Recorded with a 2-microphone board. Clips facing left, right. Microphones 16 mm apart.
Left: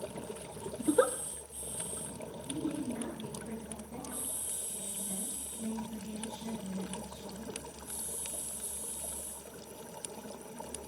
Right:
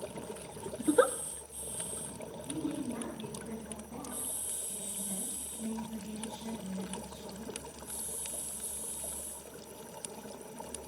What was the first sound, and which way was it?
A giggle, 15° right (ahead or behind).